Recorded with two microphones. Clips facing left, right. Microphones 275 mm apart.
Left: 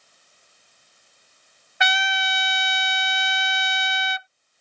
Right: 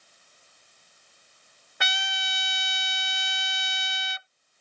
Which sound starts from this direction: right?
A trumpet, at 1.8 s.